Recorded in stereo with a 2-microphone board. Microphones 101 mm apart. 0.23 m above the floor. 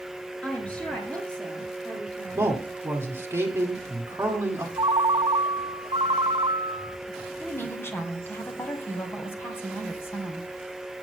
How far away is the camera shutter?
I don't hear a camera shutter.